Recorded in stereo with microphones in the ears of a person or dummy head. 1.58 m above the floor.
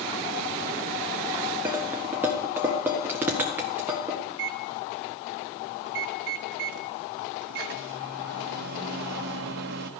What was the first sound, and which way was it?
Dishes clattering, 10° right (ahead or behind).